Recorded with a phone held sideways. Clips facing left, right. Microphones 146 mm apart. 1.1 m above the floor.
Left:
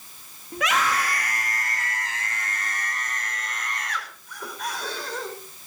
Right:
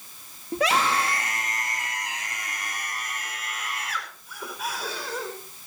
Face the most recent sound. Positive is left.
turn(degrees=-5)  # may be behind; listen again after turning